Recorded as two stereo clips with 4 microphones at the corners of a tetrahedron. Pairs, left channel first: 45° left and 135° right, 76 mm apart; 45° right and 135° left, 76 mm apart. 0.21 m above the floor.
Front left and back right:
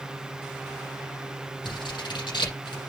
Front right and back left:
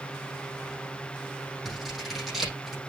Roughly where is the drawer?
I don't hear a drawer.